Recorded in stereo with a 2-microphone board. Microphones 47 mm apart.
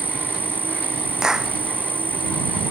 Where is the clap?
15° right (ahead or behind).